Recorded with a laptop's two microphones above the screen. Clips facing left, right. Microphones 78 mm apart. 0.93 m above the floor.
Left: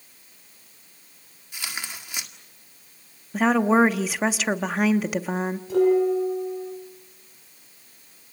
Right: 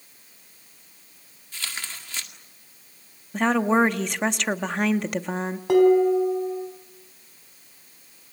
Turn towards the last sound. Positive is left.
turn(degrees=-85)